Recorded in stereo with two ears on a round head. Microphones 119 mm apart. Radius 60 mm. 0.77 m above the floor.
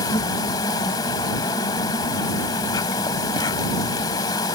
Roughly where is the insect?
Left.